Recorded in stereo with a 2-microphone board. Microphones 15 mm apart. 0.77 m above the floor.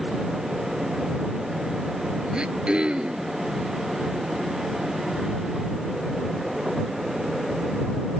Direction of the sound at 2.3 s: 70° right (ahead or behind).